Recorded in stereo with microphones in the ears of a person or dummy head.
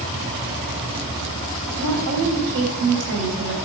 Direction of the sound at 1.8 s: 75° right (ahead or behind).